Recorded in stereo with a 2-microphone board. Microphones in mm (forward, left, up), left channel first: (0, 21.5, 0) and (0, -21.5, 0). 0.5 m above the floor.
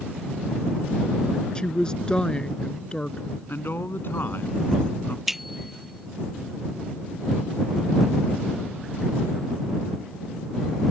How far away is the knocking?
I don't hear knocking.